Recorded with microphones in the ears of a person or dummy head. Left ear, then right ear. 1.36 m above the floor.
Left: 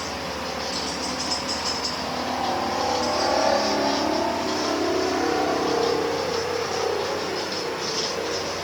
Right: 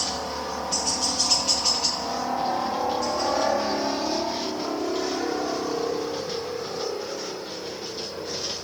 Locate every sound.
0.0 s a helicopter: 45° right (ahead or behind); by 8.7 s 30° left (ahead or behind)